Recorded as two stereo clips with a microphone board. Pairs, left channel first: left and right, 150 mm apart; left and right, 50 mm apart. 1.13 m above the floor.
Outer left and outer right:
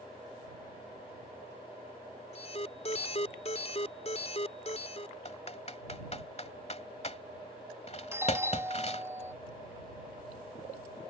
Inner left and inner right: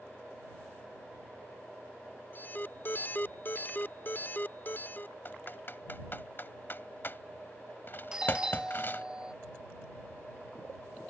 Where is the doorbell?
15° right (ahead or behind).